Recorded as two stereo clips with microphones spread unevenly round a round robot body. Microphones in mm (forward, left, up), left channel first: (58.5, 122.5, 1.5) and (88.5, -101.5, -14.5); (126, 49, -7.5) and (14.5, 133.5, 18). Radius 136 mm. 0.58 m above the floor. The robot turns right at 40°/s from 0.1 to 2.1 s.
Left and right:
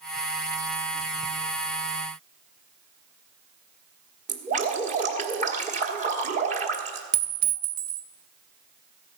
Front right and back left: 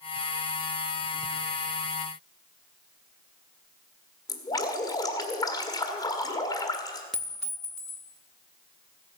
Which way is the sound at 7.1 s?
115° right.